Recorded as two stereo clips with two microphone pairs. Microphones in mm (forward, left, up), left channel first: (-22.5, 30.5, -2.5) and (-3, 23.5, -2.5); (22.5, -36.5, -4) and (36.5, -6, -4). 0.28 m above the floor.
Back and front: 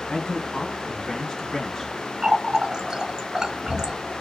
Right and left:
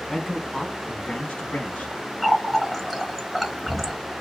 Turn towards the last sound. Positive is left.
turn(degrees=-20)